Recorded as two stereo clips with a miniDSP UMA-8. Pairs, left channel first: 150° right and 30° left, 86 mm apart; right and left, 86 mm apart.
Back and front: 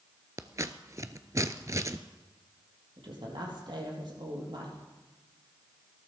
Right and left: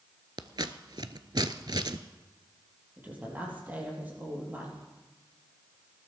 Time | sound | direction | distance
0.4 | scissors | 75° left | 0.6 m
3.0 | a woman speaking | 25° left | 4 m